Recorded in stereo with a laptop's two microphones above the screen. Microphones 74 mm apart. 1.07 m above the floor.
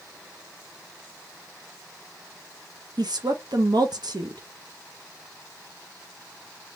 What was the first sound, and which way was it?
A woman speaking, 70° right (ahead or behind).